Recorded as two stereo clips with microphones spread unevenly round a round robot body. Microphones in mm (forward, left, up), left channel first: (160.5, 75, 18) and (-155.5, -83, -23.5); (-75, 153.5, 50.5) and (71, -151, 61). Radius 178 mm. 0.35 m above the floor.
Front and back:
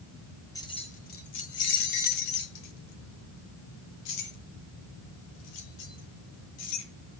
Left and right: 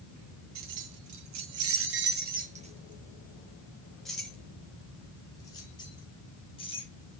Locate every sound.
0.6 s keys jangling: 55° right, 1.7 m; by 6.9 s 40° left, 5 m